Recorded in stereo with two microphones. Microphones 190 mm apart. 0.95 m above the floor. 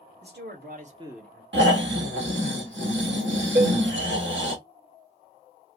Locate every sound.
0.2 s a man speaking: 65° right (ahead or behind), 1.7 m; by 1.4 s 25° left (ahead or behind), 0.8 m
1.5 s snoring: 80° right, 1.4 m
3.5 s a cowbell: 50° right (ahead or behind), 1.3 m